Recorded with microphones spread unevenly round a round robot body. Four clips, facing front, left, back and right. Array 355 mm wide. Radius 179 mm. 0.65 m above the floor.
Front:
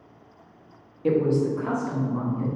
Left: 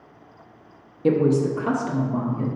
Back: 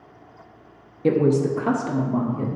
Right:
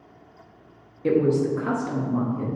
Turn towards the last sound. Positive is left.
turn(degrees=180)